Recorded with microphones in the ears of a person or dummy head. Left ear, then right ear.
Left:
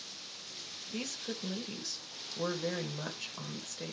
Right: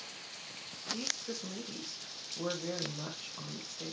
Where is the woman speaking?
65° left (ahead or behind), 1.6 m.